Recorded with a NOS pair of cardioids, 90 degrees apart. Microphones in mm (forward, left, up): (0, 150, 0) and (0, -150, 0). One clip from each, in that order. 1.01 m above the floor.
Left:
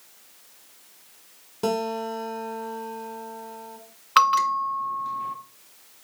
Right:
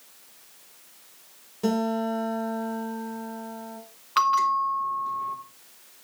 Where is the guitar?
45° left, 4 m.